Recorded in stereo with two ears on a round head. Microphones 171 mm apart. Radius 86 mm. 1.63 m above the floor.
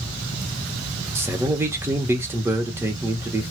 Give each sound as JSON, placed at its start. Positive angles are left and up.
{"t": 1.1, "sound": "a man speaking", "side_deg": -15, "distance_m": 1.1}